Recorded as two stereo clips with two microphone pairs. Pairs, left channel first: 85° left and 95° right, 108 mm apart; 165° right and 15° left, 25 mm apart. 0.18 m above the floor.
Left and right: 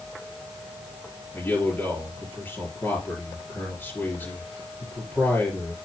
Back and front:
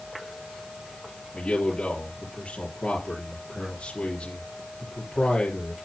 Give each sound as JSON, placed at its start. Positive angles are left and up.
{"t": 1.3, "sound": "a man speaking", "azimuth_deg": 155, "distance_m": 4.0}